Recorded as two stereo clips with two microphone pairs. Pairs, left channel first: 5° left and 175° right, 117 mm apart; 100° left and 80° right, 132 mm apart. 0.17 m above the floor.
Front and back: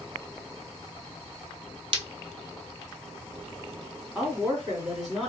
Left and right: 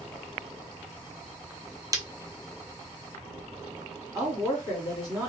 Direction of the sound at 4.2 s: 85° right.